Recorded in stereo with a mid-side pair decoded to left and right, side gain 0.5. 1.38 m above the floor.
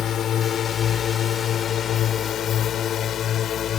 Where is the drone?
55° left.